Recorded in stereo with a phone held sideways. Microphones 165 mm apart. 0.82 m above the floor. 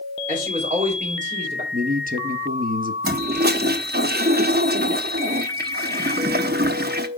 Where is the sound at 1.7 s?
65° right (ahead or behind), 1.3 m.